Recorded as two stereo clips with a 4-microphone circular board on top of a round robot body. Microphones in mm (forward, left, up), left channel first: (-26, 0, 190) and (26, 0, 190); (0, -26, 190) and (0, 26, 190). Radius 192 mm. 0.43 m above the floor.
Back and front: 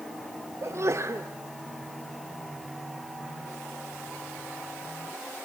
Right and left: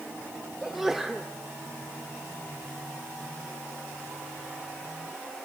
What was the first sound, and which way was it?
A sneeze, 5° left.